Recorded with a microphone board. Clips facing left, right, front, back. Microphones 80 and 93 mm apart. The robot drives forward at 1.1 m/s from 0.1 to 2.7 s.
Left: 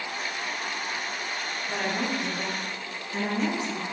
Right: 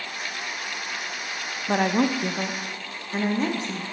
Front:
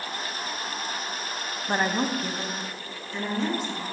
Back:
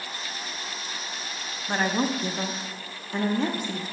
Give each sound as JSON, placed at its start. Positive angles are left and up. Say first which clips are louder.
{"t": 1.7, "sound": "a woman speaking", "louder": "right 8 dB, even", "azimuth_deg": -70, "distance_m": 0.8}